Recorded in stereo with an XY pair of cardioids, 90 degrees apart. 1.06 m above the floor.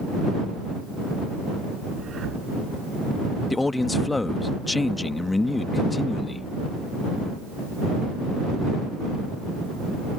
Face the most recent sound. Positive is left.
turn(degrees=20)